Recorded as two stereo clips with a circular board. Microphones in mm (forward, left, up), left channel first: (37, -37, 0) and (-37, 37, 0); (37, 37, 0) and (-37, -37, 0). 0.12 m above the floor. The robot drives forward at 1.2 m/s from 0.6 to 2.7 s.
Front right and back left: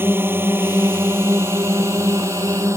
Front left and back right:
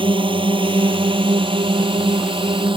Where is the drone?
160° right; by 2.8 s 165° right.